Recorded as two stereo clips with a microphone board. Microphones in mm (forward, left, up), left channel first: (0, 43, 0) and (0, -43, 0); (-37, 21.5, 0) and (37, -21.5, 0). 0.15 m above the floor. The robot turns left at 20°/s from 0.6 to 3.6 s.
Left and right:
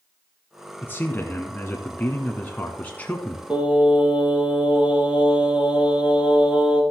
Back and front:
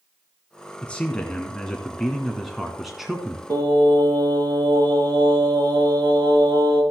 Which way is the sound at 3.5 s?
20° right.